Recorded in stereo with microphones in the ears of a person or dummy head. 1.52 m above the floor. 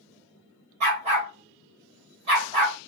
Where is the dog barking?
25° right (ahead or behind), 2 m.